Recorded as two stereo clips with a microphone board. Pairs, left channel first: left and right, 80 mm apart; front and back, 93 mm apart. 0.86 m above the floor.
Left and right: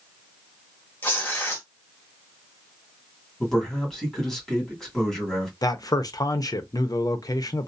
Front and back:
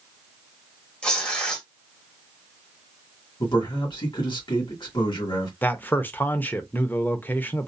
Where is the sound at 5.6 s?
65° left, 0.5 m.